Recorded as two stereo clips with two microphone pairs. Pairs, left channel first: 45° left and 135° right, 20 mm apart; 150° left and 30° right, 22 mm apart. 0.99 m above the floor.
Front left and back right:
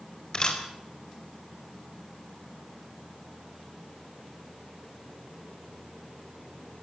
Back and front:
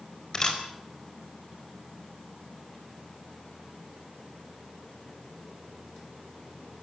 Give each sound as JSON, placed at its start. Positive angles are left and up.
{"t": 0.3, "sound": "a camera shutter", "azimuth_deg": 95, "distance_m": 4.0}